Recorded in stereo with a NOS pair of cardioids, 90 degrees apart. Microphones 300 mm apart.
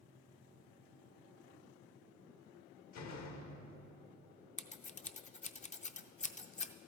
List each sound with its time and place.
2.9 s a door slam: 65° left, 1.3 m
4.6 s scissors: 25° left, 0.6 m